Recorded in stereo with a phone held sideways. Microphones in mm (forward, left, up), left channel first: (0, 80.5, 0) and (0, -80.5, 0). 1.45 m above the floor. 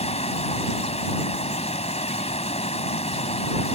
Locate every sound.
0.0 s running water: 40° left (ahead or behind)